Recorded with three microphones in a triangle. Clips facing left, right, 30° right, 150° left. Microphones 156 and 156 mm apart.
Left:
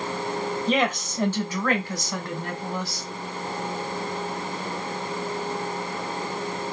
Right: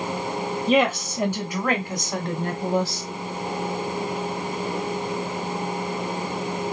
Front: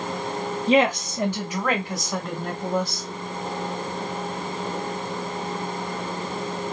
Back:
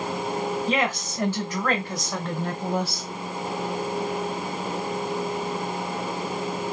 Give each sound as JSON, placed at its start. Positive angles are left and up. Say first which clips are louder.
{"t": 0.7, "sound": "a woman speaking", "louder": "right 5 dB, front 6 dB", "azimuth_deg": -10, "distance_m": 1.4}